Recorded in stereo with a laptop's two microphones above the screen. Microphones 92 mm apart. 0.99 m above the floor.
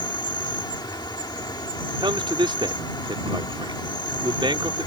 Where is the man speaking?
65° right (ahead or behind).